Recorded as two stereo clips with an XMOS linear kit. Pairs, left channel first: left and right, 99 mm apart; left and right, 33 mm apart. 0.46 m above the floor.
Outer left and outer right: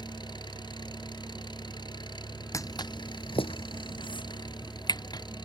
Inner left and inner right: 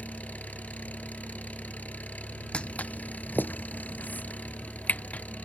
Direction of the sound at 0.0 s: 50° left (ahead or behind).